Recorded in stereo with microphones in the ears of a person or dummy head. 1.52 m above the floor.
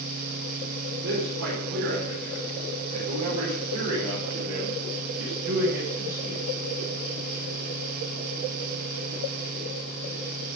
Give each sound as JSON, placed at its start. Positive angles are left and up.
{"t": 1.0, "sound": "a man speaking", "side_deg": -65, "distance_m": 5.5}